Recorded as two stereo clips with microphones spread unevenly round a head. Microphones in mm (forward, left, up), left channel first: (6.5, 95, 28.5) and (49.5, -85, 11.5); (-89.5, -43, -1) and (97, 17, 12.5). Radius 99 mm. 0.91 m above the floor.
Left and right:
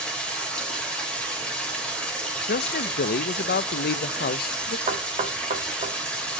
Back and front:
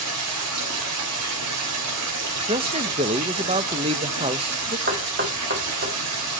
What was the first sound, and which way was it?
Running water, 20° left.